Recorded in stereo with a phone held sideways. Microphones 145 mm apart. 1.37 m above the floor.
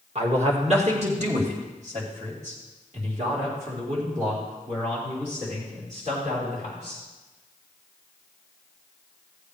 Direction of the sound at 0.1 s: 45° right (ahead or behind).